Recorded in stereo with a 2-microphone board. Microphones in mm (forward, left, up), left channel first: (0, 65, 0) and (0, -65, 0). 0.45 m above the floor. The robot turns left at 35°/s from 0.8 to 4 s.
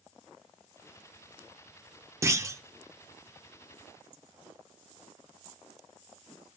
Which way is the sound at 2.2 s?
20° right (ahead or behind).